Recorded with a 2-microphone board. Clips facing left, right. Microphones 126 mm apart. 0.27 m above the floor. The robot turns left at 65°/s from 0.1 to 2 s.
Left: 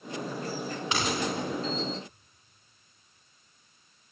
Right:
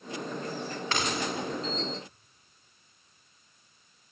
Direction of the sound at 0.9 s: 15° left (ahead or behind).